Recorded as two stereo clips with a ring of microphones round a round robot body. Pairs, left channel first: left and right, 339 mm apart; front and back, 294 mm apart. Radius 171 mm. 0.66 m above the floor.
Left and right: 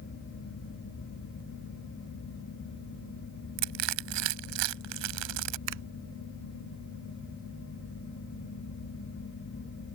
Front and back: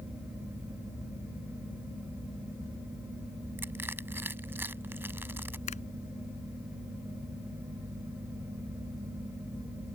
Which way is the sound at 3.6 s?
95° right.